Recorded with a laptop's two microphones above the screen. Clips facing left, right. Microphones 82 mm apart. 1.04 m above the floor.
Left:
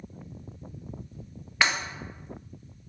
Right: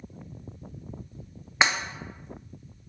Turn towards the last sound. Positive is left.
turn(degrees=-20)  # may be behind; listen again after turning